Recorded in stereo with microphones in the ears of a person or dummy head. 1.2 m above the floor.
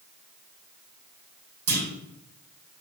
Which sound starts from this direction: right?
A clunk, at 1.7 s.